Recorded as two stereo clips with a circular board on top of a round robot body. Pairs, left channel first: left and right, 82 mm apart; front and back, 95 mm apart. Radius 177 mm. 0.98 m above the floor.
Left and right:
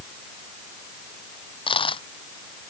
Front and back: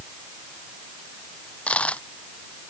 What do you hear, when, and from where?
1.7 s a dropped coin: 80° left